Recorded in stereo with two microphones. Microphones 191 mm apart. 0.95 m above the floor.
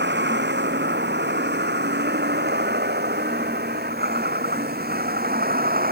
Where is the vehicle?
65° right (ahead or behind); by 5.9 s 50° right (ahead or behind).